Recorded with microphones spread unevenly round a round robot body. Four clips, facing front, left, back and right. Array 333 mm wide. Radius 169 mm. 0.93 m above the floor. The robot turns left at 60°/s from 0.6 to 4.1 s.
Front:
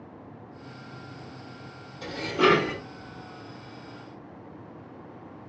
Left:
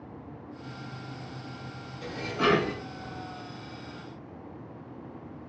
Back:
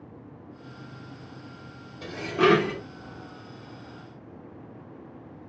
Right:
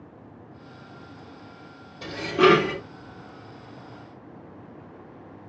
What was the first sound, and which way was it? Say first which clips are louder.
Dishes clattering: right 8 dB, back 1 dB; 80° right.